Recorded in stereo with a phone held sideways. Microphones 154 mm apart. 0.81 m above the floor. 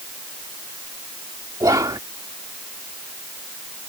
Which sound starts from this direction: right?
Whispering, at 1.6 s.